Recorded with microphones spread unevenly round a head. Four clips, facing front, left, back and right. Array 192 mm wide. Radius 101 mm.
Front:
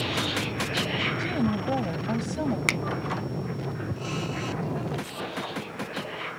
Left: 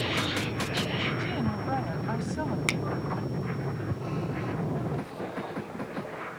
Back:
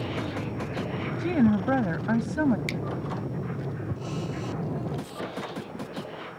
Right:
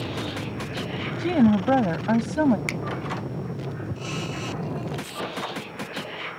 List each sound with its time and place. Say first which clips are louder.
1.2 s a woman speaking: right 11 dB, back 7 dB; 110° right
2.7 s a finger snap: even, front 4 dB; 15° left